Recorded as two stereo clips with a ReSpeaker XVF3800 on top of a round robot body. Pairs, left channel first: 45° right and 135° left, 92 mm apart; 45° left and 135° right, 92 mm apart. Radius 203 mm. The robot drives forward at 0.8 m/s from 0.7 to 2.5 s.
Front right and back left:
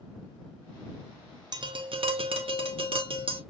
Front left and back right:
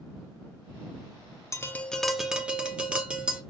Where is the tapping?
100° left, 0.7 m; by 3.4 s 145° left, 1.2 m.